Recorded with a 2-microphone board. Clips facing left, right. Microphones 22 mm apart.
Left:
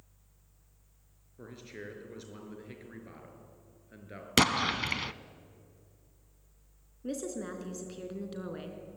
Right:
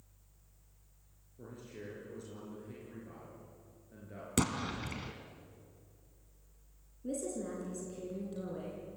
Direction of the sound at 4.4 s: 60° left (ahead or behind).